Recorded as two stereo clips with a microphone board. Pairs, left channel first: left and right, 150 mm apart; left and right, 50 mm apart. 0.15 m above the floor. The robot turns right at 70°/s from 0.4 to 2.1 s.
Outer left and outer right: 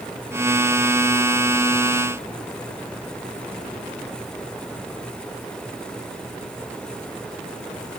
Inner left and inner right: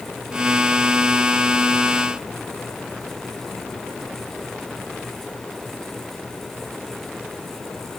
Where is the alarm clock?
I don't hear an alarm clock.